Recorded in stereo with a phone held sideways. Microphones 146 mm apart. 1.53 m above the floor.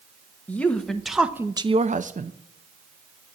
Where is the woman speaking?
10° left (ahead or behind), 1.3 m; by 2.3 s 55° right (ahead or behind), 0.7 m.